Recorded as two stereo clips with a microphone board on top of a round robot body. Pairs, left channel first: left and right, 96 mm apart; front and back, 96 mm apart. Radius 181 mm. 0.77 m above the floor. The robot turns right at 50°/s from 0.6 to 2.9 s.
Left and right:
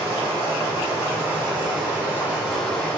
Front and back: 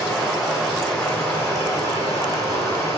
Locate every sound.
0.0 s running water: 95° right, 1.6 m; by 3.0 s 20° left, 1.6 m